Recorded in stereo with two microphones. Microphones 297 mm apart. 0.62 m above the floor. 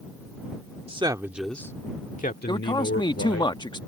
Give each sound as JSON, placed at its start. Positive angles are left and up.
{"t": 0.9, "sound": "a man speaking", "side_deg": -20}
{"t": 2.5, "sound": "a man speaking", "side_deg": 15}